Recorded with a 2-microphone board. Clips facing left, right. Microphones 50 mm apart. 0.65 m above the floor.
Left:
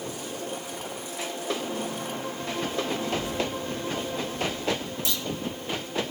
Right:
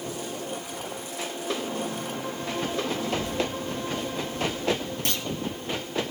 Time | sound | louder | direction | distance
3.0 | a child speaking | right 1 dB | 20° left (ahead or behind) | 7.5 m
5.0 | a clunk | right 2 dB | 50° right (ahead or behind) | 0.7 m